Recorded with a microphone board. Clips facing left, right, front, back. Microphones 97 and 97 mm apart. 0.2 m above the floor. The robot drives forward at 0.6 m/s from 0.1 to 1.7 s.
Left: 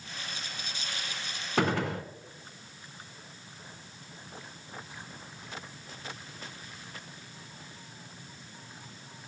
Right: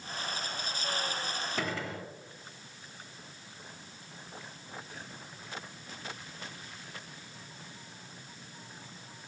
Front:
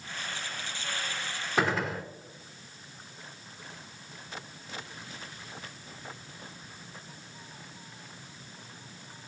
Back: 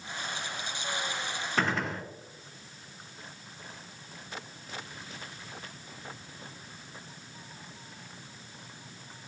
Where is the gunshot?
80° left, 0.6 m; by 2.0 s 85° left, 0.6 m.